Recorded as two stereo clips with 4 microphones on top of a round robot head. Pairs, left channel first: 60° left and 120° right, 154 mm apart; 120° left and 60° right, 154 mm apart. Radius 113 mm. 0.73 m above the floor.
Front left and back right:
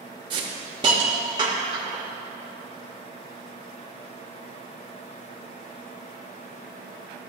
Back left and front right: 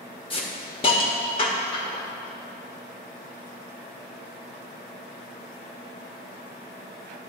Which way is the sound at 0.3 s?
Straight behind.